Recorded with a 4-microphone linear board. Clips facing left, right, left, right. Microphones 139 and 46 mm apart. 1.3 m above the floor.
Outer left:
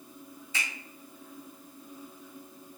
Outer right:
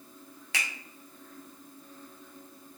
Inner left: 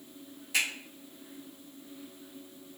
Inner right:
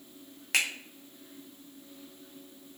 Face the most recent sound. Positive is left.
turn(degrees=-80)